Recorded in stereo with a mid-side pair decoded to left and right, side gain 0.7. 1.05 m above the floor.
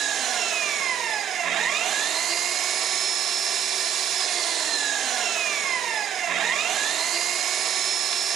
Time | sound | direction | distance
0.0 | an engine running | 40° right | 0.8 m